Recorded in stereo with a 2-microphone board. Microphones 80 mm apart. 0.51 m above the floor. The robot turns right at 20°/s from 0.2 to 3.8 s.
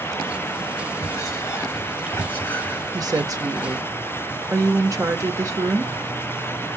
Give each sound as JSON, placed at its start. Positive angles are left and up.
{"t": 1.0, "sound": "whispering", "azimuth_deg": 125, "distance_m": 3.5}
{"t": 2.9, "sound": "a woman speaking", "side_deg": -50, "distance_m": 1.2}